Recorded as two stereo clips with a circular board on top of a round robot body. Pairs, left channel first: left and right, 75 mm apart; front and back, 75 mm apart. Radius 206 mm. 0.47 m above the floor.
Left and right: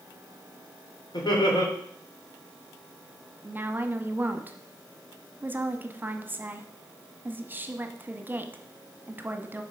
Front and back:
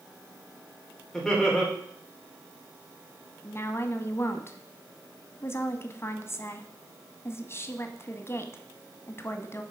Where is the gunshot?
No gunshot in this recording.